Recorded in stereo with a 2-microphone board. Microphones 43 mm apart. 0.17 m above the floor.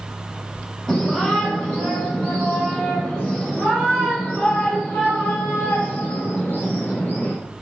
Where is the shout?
15° left (ahead or behind), 5.5 m; by 7.3 s 50° left (ahead or behind), 4 m.